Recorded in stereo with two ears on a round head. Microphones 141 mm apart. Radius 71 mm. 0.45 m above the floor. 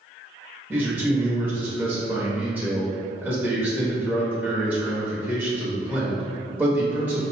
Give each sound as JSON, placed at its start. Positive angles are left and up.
{"t": 0.7, "sound": "a man speaking", "side_deg": -10, "distance_m": 1.1}